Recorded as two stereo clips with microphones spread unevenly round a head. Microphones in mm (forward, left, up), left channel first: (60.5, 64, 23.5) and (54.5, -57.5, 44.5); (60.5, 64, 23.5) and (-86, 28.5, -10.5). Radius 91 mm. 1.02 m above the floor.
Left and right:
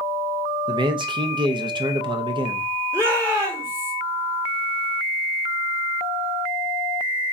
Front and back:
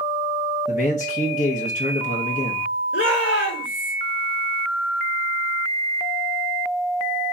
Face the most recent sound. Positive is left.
turn(degrees=-25)